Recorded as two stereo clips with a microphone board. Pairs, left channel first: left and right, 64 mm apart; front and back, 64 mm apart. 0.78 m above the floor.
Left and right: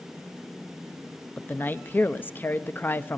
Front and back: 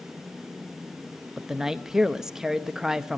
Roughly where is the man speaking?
Left.